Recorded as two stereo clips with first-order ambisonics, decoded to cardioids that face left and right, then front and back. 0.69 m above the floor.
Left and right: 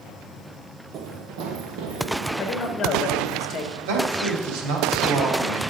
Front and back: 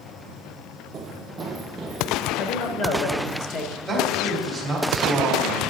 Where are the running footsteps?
125° right, 0.9 m; by 3.4 s 80° right, 4.5 m.